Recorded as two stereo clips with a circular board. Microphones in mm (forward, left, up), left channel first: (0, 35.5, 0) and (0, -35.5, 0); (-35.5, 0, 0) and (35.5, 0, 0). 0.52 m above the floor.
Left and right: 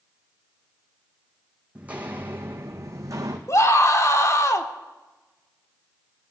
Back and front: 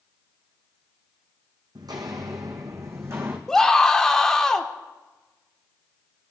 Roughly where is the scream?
Left.